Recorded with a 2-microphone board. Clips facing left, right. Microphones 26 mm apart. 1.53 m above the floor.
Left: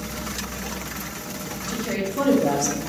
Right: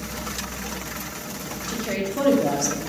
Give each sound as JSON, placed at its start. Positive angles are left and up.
{"t": 1.7, "sound": "a woman speaking", "side_deg": -5, "distance_m": 0.9}